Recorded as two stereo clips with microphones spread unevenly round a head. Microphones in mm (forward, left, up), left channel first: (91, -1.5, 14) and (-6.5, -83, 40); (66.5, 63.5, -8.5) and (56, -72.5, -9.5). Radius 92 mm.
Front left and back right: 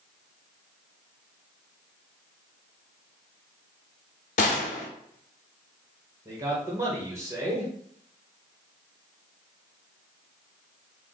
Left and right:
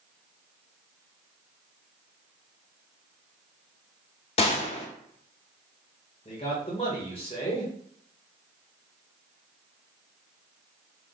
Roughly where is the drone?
I don't hear a drone.